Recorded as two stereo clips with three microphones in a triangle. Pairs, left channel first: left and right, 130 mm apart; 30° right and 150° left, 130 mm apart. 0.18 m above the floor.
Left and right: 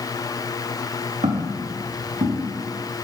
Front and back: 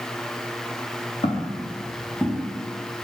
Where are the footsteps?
70° right, 1.4 m; by 2.5 s 115° right, 2 m.